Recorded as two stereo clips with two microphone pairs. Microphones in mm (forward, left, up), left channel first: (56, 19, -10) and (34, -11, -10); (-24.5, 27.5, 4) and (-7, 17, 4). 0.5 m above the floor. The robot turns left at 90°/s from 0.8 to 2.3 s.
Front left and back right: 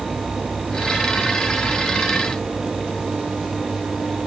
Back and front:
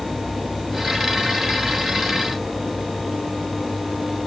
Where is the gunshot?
I don't hear a gunshot.